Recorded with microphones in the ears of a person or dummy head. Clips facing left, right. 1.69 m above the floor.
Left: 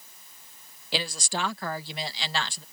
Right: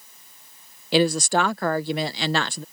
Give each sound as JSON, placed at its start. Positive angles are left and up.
{"t": 0.9, "sound": "a woman speaking", "side_deg": -40}